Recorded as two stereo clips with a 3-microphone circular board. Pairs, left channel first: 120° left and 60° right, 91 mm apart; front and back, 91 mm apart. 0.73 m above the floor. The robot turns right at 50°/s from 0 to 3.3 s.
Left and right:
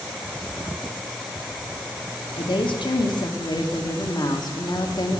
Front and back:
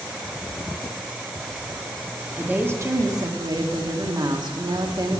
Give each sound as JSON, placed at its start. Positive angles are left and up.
{"t": 2.4, "sound": "a woman speaking", "azimuth_deg": 105, "distance_m": 1.3}